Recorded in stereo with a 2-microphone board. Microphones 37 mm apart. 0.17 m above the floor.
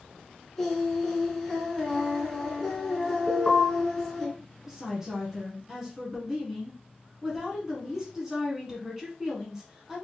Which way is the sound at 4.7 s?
15° right (ahead or behind).